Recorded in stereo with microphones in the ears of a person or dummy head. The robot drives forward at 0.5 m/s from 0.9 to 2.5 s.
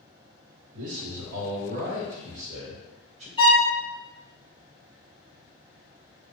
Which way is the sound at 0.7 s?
70° right (ahead or behind).